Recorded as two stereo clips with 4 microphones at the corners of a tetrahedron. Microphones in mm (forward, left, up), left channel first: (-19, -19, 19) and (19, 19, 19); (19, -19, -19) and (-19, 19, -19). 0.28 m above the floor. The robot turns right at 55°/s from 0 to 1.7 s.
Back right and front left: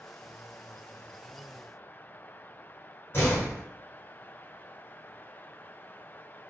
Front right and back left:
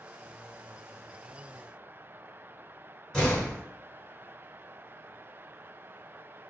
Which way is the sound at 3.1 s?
115° right.